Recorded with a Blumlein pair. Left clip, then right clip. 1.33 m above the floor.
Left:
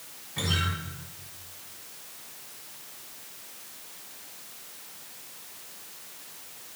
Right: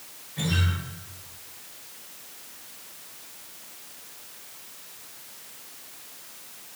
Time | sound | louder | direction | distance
0.4 | a guitar | left 1 dB | 65° left | 3.5 m